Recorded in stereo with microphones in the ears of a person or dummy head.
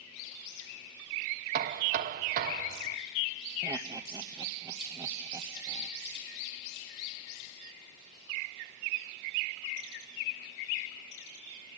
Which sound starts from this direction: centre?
Laughter, at 3.6 s.